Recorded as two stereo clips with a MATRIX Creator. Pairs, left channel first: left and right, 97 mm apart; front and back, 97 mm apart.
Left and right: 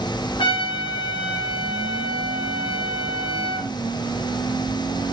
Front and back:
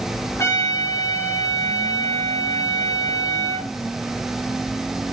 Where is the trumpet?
60° left, 1.0 m.